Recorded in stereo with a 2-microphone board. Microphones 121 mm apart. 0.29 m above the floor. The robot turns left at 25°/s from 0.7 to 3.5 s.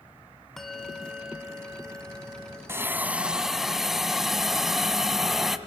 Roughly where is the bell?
Ahead.